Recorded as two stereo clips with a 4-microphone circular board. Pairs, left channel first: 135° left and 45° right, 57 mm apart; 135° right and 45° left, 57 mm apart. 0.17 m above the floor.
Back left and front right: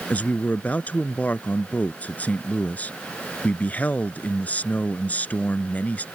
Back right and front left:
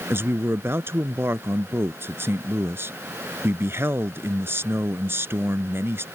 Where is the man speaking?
80° left.